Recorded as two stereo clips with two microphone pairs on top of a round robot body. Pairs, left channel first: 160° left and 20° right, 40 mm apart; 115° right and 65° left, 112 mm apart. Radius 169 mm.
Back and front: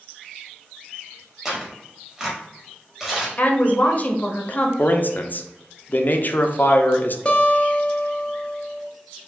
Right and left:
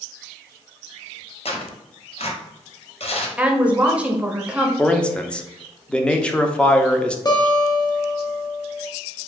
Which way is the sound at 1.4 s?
105° right.